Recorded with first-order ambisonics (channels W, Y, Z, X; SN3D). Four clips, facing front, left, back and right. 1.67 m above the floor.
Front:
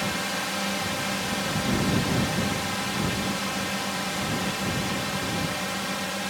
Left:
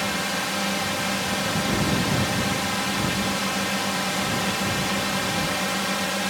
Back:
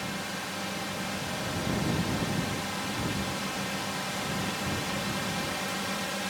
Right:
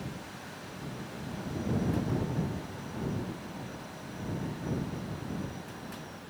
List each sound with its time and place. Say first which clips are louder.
0.0 s a drone: left 17 dB, front 7 dB; 65° left; by 6.3 s 80° left